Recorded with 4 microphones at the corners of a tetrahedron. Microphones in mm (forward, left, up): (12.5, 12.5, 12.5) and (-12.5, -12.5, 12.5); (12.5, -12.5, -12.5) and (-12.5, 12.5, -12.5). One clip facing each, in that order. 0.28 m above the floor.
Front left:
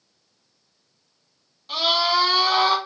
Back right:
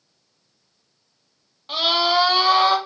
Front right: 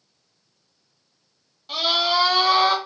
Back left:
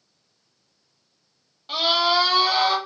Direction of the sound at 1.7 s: 170° right.